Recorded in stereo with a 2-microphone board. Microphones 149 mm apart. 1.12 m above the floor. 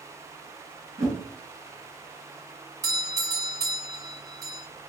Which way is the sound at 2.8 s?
20° right (ahead or behind).